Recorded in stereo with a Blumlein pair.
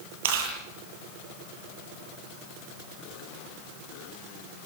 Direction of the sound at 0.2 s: 55° right.